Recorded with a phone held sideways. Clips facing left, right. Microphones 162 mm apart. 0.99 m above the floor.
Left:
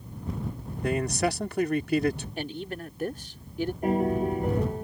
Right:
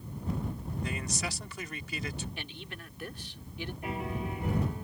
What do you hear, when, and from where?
0.8 s a man speaking: 60° left (ahead or behind)
2.4 s a man speaking: 45° left (ahead or behind)
3.8 s a piano: 45° left (ahead or behind)